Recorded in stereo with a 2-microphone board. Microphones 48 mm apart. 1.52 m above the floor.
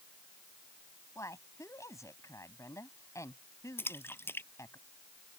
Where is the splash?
50° left (ahead or behind).